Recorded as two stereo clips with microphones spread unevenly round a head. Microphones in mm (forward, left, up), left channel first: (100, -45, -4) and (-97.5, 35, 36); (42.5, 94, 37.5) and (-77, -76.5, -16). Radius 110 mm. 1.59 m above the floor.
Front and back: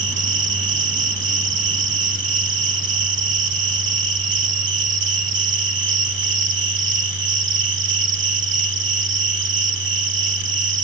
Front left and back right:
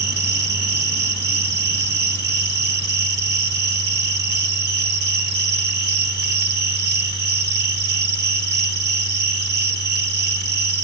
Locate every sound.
0.0 s an insect: 170° right, 3 m